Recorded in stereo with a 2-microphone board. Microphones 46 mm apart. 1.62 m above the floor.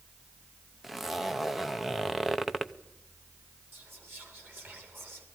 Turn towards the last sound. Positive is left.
turn(degrees=-50)  # may be behind; listen again after turning